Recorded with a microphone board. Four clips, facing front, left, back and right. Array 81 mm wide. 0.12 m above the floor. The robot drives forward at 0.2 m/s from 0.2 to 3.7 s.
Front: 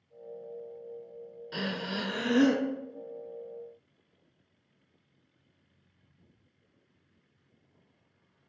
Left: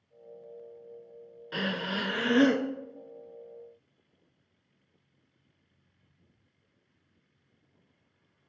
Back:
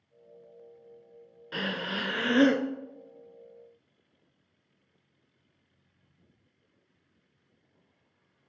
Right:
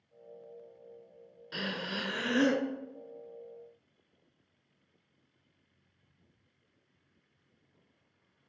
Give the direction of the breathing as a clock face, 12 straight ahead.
8 o'clock.